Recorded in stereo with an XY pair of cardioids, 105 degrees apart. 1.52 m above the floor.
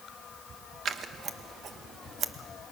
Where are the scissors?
60° right, 1.3 m.